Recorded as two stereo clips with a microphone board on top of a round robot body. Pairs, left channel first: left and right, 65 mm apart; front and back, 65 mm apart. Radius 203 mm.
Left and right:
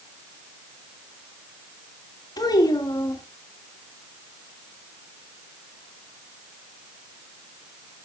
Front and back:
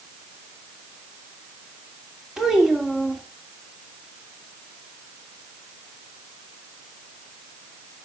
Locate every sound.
2.4 s a child speaking: 95° left, 2.5 m